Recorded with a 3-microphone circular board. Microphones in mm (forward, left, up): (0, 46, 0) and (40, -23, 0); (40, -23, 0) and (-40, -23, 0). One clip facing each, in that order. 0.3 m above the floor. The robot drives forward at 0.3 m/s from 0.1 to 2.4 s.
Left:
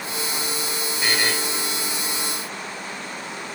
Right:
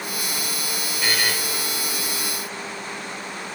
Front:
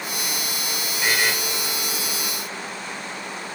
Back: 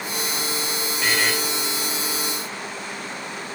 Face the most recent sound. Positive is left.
turn(degrees=115)